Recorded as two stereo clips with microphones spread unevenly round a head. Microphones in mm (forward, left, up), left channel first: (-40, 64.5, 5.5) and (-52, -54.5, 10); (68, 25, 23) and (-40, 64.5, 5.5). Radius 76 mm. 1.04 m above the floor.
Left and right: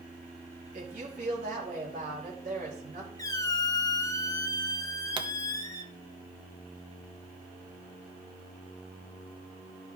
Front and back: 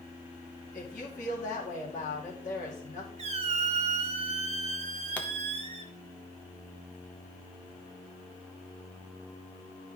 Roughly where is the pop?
Right.